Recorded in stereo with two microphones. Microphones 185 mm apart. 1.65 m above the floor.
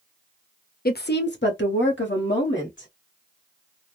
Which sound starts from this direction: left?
A woman speaking, at 0.8 s.